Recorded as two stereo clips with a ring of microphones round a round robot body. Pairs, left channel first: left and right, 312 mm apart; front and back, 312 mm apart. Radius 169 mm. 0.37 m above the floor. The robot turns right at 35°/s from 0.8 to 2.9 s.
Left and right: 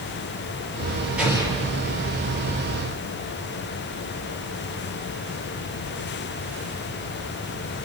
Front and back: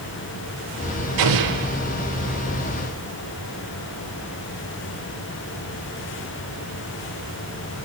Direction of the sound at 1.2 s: Straight behind.